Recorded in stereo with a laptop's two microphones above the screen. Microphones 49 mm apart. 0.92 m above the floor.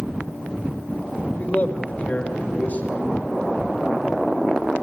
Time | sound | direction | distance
1.4 | a man speaking | 35° left (ahead or behind) | 4 m